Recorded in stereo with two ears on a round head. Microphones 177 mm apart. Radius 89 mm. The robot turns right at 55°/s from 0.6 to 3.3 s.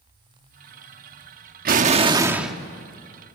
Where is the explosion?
50° right, 1.1 m; by 2.5 s straight ahead, 1.1 m.